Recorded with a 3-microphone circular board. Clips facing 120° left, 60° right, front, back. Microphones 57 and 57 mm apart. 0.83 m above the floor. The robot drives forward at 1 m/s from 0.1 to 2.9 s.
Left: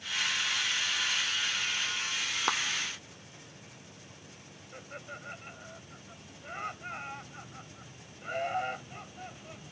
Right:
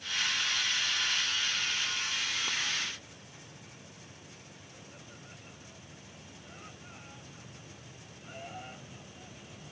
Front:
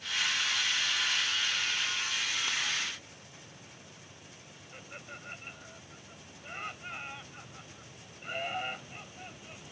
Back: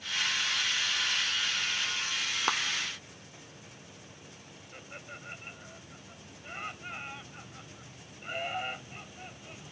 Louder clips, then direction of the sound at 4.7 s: Left 11 dB, even; 90° left.